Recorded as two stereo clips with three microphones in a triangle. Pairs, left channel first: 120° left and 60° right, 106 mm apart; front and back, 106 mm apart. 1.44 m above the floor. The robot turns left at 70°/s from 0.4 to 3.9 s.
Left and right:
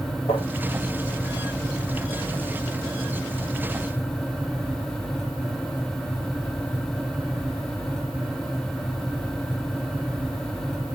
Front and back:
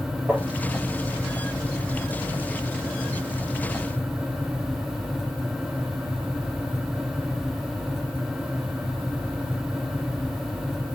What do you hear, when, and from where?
0.3 s tapping: 105° left, 5.5 m; by 0.4 s 100° left, 5.5 m